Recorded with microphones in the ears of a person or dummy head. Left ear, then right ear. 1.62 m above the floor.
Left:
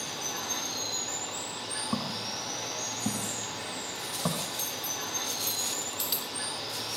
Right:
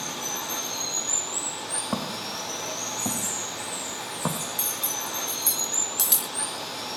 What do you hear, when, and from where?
0.0 s running water: 35° right (ahead or behind), 10 m
1.9 s footsteps: 55° right (ahead or behind), 4.5 m; by 4.5 s 50° right (ahead or behind), 2.5 m
4.6 s cutlery clinking: 50° right (ahead or behind), 1.5 m